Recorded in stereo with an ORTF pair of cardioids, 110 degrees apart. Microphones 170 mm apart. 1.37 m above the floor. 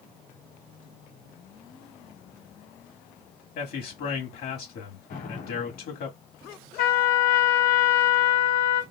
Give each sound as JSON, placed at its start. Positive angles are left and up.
{"t": 3.5, "sound": "a man speaking", "azimuth_deg": 65, "distance_m": 2.0}
{"t": 5.1, "sound": "an explosion", "azimuth_deg": 70, "distance_m": 2.5}
{"t": 6.8, "sound": "a trumpet", "azimuth_deg": 60, "distance_m": 0.9}